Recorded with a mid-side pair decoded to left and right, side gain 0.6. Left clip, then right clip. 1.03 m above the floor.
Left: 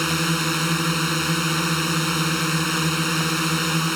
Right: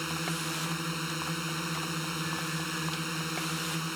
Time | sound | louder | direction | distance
0.0 | a drone | left 11 dB | 50° left | ?